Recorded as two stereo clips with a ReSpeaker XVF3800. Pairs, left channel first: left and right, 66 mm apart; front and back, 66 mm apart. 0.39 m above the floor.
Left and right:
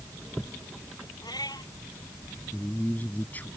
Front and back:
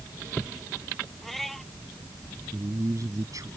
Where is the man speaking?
155° left.